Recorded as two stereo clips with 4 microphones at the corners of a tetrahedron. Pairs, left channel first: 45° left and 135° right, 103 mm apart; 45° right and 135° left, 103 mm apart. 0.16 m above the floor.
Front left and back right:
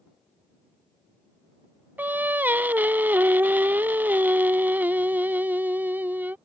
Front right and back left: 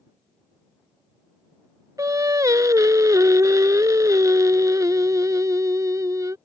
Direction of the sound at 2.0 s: 165° left.